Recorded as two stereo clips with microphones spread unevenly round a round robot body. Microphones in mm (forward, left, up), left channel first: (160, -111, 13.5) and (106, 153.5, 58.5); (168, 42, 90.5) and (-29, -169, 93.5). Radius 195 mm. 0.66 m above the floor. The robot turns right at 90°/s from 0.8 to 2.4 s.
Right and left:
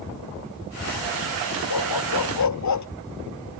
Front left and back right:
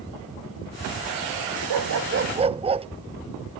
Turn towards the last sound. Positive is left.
turn(degrees=-65)